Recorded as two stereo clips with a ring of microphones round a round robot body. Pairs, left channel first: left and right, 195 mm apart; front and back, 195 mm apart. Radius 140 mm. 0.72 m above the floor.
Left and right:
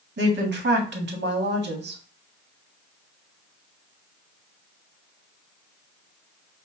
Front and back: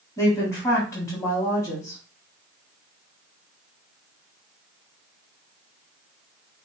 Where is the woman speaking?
75° right, 1.5 m.